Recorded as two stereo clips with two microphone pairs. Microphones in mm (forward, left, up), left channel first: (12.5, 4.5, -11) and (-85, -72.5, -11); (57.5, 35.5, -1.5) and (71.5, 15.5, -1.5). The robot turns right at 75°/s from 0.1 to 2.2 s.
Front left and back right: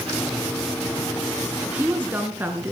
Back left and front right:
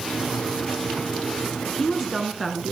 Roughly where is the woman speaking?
Behind.